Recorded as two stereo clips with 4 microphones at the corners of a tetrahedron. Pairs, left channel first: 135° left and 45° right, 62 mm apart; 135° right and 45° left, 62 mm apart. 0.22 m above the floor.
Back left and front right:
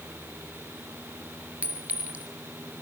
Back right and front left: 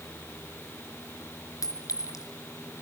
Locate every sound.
1.6 s a clink: 110° right, 3 m